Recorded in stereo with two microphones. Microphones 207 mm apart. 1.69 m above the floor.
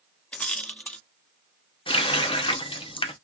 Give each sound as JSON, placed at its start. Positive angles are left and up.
{"t": 0.3, "sound": "a rattle", "side_deg": 5, "distance_m": 0.8}
{"t": 1.9, "sound": "a running tap", "side_deg": 25, "distance_m": 0.7}